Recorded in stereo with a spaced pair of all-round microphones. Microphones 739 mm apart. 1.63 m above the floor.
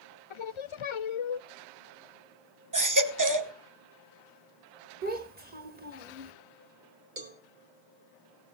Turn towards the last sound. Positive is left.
turn(degrees=-85)